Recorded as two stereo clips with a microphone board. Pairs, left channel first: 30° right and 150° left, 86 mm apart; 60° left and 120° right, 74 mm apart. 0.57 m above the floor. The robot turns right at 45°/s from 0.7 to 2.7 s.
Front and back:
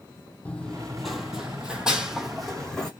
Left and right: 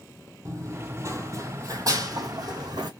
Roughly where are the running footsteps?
Right.